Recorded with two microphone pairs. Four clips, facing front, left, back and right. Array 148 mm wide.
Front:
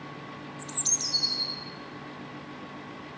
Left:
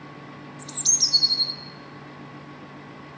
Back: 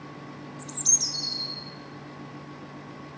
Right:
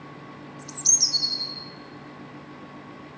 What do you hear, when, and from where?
0.6 s a bird: 95° left, 1.9 m